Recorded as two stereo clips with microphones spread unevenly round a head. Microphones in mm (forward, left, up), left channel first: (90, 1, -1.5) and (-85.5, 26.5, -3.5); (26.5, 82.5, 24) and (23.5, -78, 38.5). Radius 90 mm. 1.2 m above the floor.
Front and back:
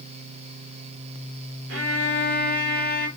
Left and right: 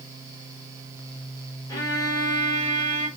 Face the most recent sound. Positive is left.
turn(degrees=160)